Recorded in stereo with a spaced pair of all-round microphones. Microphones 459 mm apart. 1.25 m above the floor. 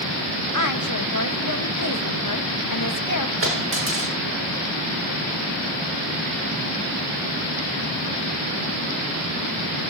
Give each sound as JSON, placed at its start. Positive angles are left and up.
{"t": 0.5, "sound": "a woman speaking", "side_deg": 40, "distance_m": 1.5}
{"t": 3.4, "sound": "a dropped coin", "side_deg": -25, "distance_m": 9.0}